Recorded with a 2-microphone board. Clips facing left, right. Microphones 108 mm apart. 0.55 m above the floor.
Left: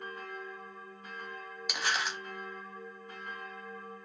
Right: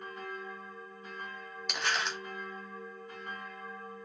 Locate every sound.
1.7 s crumpling: 5° left (ahead or behind), 0.8 m